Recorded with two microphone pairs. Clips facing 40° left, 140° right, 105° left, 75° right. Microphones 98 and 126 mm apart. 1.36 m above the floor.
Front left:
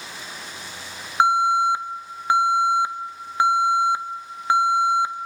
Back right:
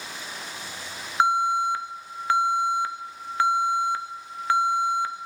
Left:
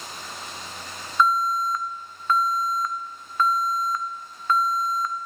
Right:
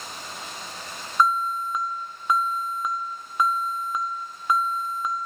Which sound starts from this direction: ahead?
An alarm, at 1.2 s.